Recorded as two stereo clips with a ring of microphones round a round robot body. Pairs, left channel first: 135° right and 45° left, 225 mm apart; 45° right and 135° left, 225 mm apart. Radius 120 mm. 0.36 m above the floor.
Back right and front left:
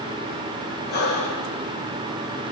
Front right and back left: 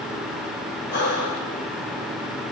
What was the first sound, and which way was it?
Breathing, 90° right.